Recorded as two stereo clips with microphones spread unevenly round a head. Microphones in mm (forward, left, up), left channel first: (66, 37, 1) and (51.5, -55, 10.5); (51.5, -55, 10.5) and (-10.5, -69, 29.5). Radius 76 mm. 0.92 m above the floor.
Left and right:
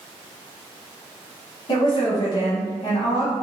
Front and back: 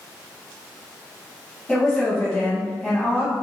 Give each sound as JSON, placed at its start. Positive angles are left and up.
{"t": 1.7, "sound": "a woman speaking", "azimuth_deg": 75, "distance_m": 1.2}